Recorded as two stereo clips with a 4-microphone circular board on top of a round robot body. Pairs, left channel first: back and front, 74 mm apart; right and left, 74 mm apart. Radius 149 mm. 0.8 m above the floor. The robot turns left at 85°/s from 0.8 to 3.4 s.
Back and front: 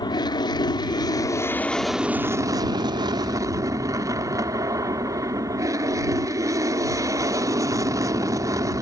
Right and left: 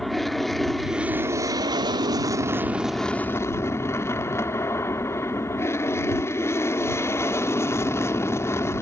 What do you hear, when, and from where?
0.0 s an aircraft: straight behind; by 8.8 s 40° right